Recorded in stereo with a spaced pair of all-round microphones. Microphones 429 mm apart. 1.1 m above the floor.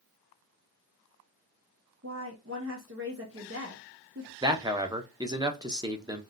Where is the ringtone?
I don't hear a ringtone.